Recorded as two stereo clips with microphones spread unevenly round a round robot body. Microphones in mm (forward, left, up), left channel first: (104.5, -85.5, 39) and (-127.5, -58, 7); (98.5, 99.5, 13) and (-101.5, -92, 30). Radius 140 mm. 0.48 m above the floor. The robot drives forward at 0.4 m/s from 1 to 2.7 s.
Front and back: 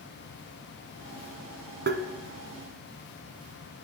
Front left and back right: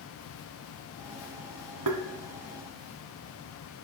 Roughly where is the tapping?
Behind right.